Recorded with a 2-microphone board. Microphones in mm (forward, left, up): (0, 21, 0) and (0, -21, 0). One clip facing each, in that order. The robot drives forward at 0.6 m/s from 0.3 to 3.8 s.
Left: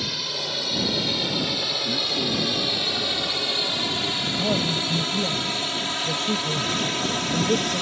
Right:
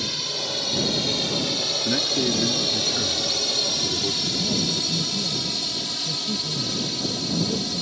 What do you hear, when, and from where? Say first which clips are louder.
0.0 s a drone: even; 10° left (ahead or behind); by 7.8 s 55° left (ahead or behind)
1.9 s a man speaking: right 4 dB; 40° right (ahead or behind); by 4.2 s 25° right (ahead or behind)
4.3 s a man speaking: left 2 dB; 75° left (ahead or behind)